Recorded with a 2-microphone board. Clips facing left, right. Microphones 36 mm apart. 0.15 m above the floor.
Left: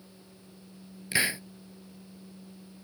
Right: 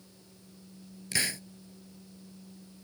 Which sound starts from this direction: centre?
A hiss, at 1.1 s.